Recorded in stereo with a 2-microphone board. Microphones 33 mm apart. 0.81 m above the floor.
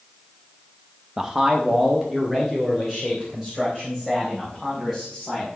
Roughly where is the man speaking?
Centre.